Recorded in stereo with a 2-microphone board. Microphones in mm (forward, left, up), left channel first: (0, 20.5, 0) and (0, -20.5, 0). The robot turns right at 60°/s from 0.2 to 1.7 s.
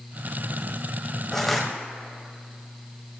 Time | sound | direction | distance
1.3 | crushing | 10° left (ahead or behind) | 1.7 m